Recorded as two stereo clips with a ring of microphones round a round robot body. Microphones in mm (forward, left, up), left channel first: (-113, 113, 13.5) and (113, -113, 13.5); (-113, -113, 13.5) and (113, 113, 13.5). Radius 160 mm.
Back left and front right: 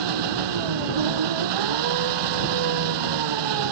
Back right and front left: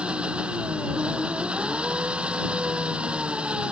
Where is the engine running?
40° right.